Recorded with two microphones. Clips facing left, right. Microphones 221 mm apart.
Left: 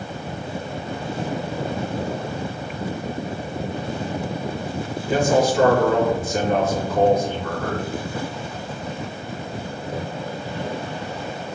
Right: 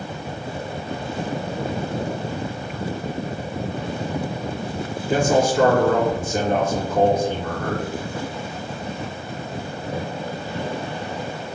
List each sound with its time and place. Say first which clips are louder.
5.1 s a man speaking: even; 50° right (ahead or behind), 2.0 m